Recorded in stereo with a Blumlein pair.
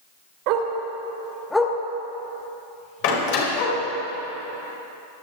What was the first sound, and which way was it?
A dog barking, 45° right.